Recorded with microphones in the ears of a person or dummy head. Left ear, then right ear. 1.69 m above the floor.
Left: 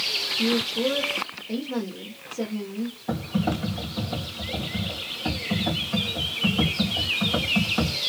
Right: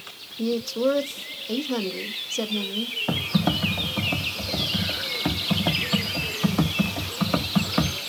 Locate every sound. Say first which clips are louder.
0.4 s a woman speaking: right 4 dB; 80° right, 0.6 m
3.1 s typing on a keyboard: right 1 dB; 65° right (ahead or behind), 0.7 m